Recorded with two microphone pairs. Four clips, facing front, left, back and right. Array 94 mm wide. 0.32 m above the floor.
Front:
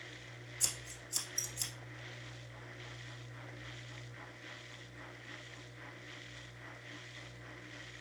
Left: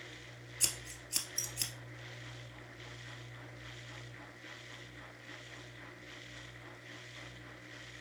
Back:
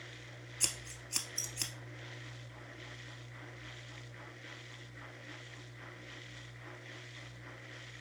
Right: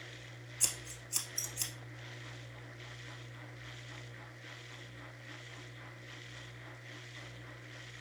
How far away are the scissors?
About 1.0 m.